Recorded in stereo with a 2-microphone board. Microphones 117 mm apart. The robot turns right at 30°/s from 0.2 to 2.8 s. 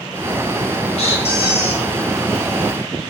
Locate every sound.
1.0 s a squeak: 60° left (ahead or behind), 0.5 m